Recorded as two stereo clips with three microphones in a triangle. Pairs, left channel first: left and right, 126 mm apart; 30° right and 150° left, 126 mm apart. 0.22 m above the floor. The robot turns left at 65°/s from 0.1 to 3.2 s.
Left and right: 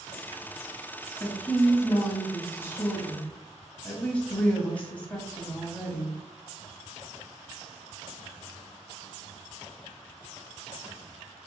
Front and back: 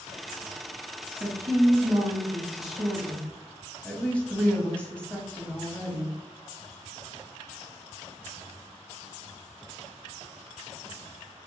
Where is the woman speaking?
160° left, 1.0 m; by 6.2 s 30° left, 1.0 m.